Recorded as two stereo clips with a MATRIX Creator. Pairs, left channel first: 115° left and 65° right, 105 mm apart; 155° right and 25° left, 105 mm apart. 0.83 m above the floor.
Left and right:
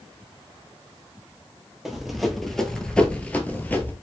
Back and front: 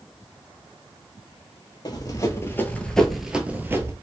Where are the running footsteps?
150° right, 1.0 m; by 3.9 s 60° left, 0.9 m.